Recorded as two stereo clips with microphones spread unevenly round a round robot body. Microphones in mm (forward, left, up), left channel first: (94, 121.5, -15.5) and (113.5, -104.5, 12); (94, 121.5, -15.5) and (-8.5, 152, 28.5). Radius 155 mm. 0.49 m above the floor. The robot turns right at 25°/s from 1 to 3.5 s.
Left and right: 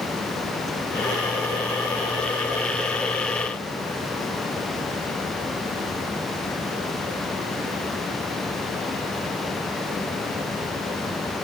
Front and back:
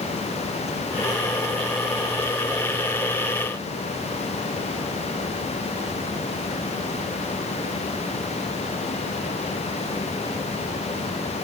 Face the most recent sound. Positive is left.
No sound to turn to.